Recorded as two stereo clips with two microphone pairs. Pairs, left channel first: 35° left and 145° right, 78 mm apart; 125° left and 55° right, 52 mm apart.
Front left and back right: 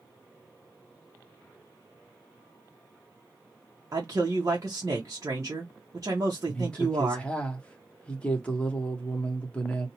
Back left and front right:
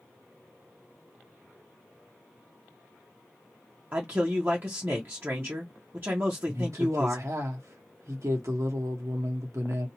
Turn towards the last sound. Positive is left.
turn(degrees=-40)